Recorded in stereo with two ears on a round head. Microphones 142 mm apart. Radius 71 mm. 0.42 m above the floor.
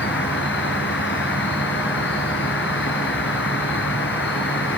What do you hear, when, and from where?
0.0 s an insect: 75° left (ahead or behind), 3.5 m